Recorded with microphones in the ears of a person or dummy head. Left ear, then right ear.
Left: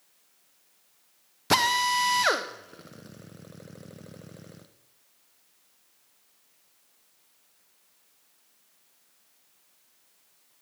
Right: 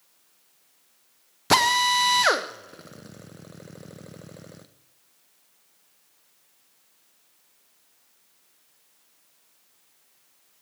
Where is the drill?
10° right (ahead or behind), 0.7 m.